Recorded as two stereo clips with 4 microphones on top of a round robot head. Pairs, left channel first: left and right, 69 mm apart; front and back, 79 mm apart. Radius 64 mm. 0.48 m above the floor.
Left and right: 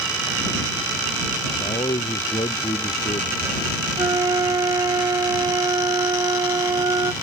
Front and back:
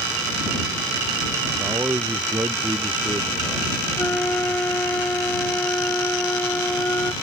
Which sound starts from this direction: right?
A flute, at 4.0 s.